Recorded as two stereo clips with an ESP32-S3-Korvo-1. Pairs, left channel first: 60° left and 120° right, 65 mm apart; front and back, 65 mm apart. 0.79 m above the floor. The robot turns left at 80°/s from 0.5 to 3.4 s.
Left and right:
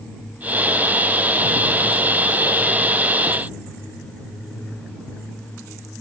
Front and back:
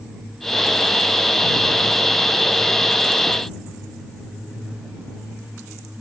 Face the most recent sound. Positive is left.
No sound to turn to.